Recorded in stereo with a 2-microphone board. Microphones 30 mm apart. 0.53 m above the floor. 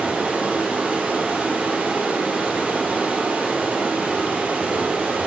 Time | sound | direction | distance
0.0 | running water | 80° right | 5 m